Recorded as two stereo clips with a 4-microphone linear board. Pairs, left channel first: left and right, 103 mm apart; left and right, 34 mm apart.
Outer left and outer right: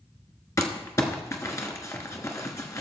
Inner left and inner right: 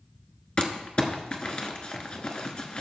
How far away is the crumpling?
About 1.1 m.